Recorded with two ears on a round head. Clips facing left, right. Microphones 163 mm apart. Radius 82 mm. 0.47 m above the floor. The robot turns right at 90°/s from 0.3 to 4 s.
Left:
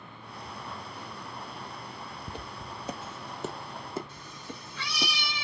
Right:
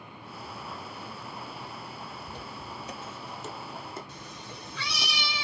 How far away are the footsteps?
About 0.7 m.